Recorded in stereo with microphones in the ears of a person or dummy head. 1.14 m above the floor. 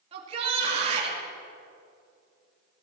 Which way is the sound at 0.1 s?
35° right (ahead or behind).